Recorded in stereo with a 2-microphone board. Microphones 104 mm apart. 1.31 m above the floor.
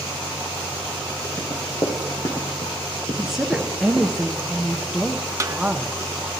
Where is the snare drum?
30° right (ahead or behind), 0.6 m.